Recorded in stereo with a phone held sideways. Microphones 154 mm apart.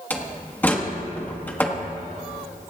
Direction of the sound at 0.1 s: 10° left (ahead or behind).